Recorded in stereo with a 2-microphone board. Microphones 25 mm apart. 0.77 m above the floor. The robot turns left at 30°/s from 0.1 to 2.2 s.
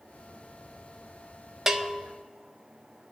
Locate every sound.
1.7 s a bell: 15° right (ahead or behind), 0.7 m; by 2.0 s 20° right (ahead or behind), 0.7 m